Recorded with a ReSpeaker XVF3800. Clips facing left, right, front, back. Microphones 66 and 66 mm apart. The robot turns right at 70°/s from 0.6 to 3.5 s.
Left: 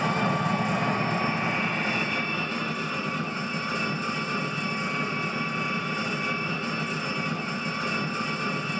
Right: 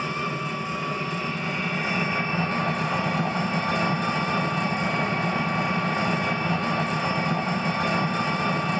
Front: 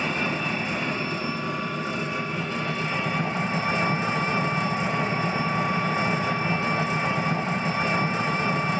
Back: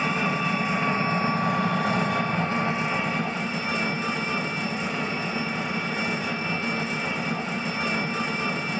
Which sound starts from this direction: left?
An engine running, at 0.0 s.